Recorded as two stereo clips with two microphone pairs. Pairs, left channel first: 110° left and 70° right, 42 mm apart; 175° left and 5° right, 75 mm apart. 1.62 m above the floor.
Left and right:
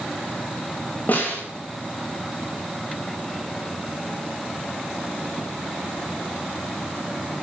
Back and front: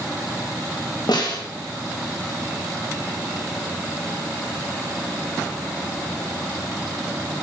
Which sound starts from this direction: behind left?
A snare drum, at 1.1 s.